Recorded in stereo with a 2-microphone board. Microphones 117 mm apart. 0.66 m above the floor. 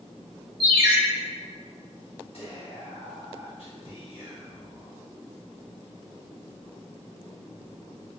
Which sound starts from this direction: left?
Whispering, at 2.3 s.